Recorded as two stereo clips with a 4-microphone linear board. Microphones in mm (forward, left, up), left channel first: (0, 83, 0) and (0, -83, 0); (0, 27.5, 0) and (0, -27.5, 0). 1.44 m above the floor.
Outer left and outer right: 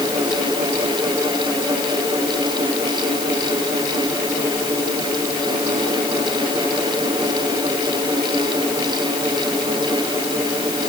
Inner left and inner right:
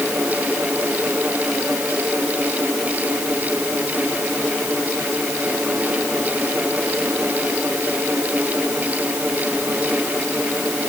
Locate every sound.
Only background noise.